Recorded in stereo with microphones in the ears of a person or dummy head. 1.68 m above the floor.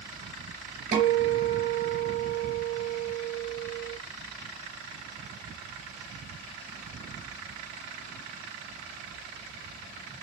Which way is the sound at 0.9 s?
65° right (ahead or behind).